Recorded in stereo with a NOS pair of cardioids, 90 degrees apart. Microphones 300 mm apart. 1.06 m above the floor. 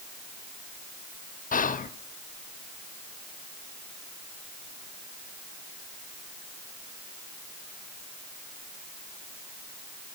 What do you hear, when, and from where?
1.5 s whispering: 25° left, 0.7 m